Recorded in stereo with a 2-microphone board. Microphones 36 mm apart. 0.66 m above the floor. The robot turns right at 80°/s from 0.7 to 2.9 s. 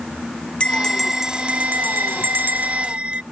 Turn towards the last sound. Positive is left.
turn(degrees=-30)